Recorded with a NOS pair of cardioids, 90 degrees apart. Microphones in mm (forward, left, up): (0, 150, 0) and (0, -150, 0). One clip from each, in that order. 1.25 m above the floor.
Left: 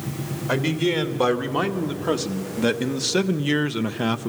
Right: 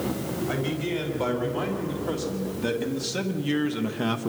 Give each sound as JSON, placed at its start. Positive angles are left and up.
{"t": 0.5, "sound": "a man speaking", "azimuth_deg": 70, "distance_m": 2.5}